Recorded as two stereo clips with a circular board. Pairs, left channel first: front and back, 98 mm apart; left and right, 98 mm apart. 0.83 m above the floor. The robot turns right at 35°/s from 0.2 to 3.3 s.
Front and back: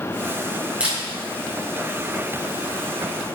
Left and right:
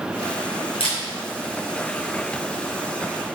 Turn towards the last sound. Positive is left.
turn(degrees=-170)